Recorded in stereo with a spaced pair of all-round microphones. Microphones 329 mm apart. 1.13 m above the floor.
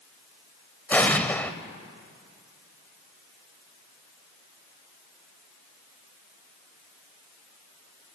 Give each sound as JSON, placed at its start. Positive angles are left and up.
{"t": 0.9, "sound": "an explosion", "side_deg": 5, "distance_m": 0.9}